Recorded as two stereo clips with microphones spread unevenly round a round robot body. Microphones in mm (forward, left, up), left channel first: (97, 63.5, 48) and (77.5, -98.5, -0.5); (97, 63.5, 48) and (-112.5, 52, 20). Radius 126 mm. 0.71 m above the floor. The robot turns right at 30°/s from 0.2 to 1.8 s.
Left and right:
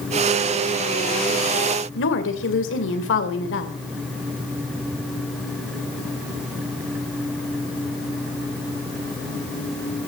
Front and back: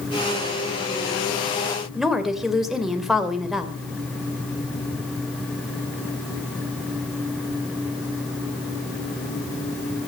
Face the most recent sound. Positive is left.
turn(degrees=95)